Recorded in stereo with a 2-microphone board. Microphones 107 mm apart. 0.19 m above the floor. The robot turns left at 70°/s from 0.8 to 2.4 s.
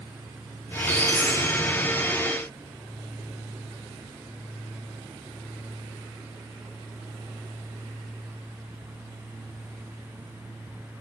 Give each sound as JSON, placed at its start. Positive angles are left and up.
{"t": 0.7, "sound": "a squeak", "azimuth_deg": 80, "distance_m": 2.5}